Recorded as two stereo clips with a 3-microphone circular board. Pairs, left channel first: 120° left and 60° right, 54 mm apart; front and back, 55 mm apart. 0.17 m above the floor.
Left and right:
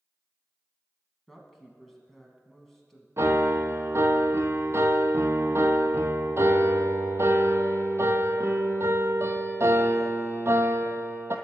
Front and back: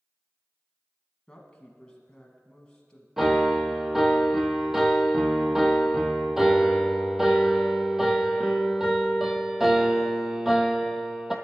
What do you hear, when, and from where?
1.3 s a woman speaking: 35° left, 1.0 m
3.2 s a piano: 95° right, 0.8 m